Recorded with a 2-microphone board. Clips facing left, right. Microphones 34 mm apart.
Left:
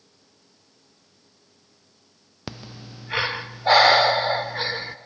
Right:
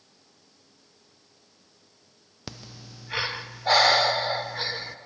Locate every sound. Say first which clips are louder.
2.5 s breathing: left 5 dB; 15° left (ahead or behind), 0.5 m